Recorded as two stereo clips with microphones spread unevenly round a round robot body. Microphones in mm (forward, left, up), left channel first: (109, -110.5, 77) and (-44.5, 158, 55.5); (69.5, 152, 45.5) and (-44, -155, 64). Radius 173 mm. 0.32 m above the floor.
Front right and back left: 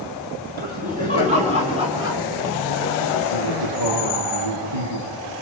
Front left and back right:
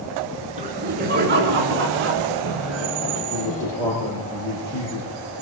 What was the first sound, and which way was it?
Laughter, straight behind.